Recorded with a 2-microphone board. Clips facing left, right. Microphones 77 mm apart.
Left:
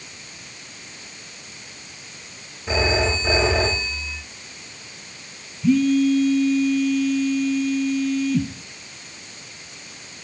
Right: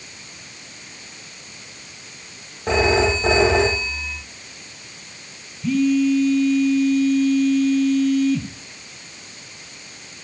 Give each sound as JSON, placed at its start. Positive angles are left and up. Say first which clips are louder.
{"t": 2.7, "sound": "a phone ringing", "louder": "right 4 dB", "side_deg": -60, "distance_m": 6.5}
{"t": 5.6, "sound": "a phone buzzing", "louder": "left 1 dB", "side_deg": 5, "distance_m": 3.0}